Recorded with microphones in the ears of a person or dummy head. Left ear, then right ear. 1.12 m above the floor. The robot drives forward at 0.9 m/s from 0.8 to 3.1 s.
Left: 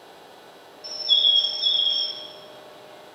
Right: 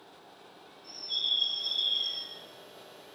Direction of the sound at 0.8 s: 65° left (ahead or behind).